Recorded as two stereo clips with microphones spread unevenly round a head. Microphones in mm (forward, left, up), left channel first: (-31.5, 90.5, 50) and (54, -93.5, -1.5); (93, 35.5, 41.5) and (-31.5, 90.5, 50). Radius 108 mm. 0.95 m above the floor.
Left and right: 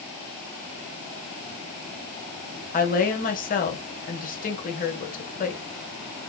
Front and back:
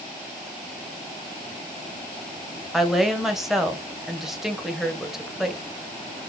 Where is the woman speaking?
65° left, 1.0 m.